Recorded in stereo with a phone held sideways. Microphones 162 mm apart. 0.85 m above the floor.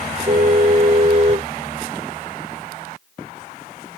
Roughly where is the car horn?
Right.